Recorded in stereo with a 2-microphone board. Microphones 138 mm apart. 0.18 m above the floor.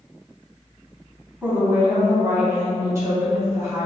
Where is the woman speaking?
15° right (ahead or behind), 1.1 m; by 3.9 s 20° right (ahead or behind), 1.7 m.